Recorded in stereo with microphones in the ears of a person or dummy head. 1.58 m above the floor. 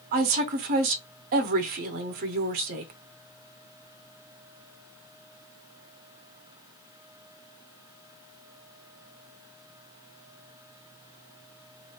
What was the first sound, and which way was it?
A woman speaking, 40° right (ahead or behind).